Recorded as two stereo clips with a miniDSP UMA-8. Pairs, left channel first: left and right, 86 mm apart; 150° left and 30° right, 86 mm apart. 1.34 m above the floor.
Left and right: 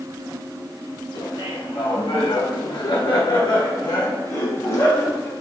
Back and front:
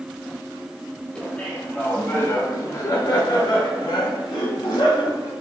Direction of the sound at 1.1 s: 70° left.